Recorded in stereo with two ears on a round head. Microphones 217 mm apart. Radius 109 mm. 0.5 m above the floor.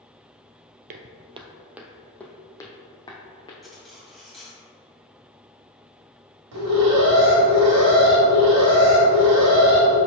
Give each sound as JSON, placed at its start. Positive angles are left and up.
{"t": 0.9, "sound": "footsteps", "side_deg": -40, "distance_m": 0.6}
{"t": 3.6, "sound": "cutlery clinking", "side_deg": 0, "distance_m": 1.8}
{"t": 6.5, "sound": "an alarm", "side_deg": -75, "distance_m": 1.7}